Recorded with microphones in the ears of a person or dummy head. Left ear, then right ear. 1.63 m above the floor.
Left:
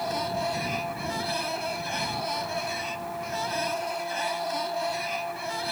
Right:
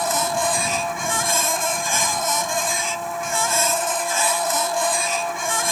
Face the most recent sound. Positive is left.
turn(degrees=-55)  # may be behind; listen again after turning